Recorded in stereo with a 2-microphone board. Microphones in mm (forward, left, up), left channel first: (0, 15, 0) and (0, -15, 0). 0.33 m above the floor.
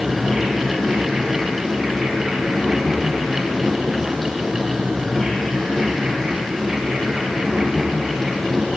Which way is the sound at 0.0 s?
10° left (ahead or behind).